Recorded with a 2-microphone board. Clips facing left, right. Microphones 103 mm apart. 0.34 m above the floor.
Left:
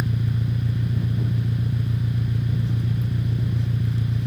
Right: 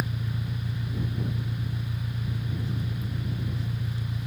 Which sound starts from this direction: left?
An engine running, at 0.0 s.